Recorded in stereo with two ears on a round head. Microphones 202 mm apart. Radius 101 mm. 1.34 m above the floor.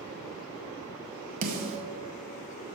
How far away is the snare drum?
About 1.3 m.